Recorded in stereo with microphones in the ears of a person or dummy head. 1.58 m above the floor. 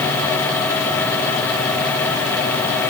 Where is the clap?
No clap in this recording.